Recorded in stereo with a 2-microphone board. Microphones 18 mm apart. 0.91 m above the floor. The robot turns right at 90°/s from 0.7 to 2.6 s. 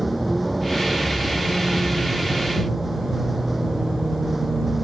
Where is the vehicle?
175° right; by 4.8 s 5° right.